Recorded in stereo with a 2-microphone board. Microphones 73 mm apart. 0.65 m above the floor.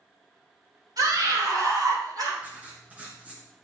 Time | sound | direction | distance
1.0 | a scream | 60° right (ahead or behind) | 2.5 m
2.4 | writing | 20° right (ahead or behind) | 2 m